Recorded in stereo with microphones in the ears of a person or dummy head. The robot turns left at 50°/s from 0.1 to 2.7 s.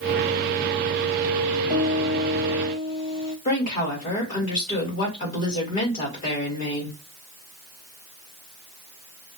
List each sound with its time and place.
1.7 s a piano: 160° right, 1.1 m; by 3.4 s 150° left, 1.1 m
3.5 s a woman speaking: 40° left (ahead or behind), 2.5 m